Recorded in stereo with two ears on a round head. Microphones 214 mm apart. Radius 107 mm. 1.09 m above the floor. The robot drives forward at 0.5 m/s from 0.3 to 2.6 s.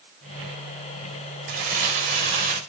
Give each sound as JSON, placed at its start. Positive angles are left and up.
{"t": 1.5, "sound": "crumpling", "side_deg": -45, "distance_m": 3.0}